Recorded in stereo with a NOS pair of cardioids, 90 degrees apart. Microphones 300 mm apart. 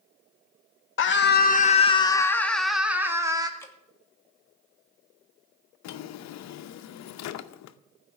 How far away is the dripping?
About 1.5 m.